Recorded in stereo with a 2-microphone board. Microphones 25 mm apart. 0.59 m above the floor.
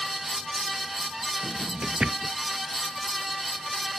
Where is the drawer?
45° right (ahead or behind).